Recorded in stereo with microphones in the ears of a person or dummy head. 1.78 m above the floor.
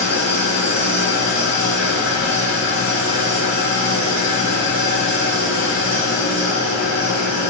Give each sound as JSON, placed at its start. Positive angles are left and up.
{"t": 0.0, "sound": "an engine running", "side_deg": 45, "distance_m": 1.8}